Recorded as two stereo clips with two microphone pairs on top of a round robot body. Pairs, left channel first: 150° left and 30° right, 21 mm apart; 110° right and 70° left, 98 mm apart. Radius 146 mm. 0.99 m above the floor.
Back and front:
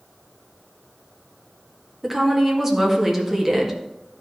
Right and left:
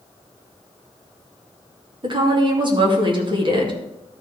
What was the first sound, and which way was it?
A woman speaking, 40° left.